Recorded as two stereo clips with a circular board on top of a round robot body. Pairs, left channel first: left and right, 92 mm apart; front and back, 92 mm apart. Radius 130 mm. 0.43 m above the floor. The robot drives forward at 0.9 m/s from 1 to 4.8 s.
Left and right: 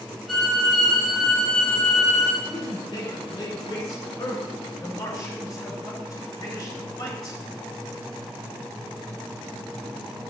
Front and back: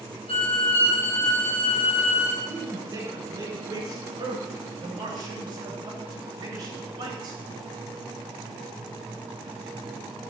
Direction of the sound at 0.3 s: Straight ahead.